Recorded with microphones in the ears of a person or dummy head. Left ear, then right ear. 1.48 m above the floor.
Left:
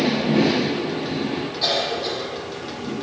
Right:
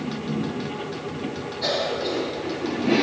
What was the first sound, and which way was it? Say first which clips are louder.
A cough: left 2 dB; 45° left (ahead or behind).